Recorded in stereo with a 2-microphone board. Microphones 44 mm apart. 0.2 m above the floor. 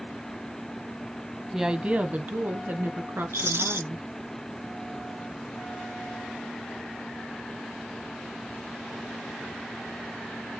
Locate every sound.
1.5 s a woman speaking: 10° right (ahead or behind), 1.0 m; by 4.1 s 60° right (ahead or behind), 3 m
3.3 s a rattle: 65° right (ahead or behind), 0.6 m